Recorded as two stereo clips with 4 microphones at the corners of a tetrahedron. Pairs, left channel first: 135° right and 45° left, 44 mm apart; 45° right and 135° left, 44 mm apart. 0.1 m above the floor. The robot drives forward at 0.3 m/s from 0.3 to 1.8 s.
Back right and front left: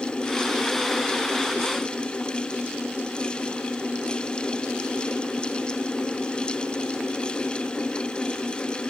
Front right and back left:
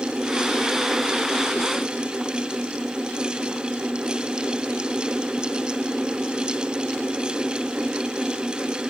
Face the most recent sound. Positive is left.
No sound to turn to.